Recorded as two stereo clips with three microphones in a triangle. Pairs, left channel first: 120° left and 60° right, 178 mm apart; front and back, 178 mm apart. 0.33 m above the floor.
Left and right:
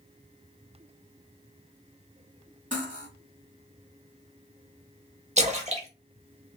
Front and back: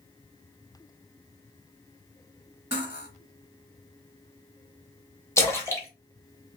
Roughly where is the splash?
Ahead right.